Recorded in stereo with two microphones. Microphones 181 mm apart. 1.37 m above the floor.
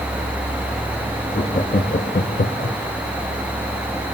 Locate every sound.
1.3 s laughter: 40° left (ahead or behind), 1.1 m; by 2.8 s 45° left (ahead or behind), 0.6 m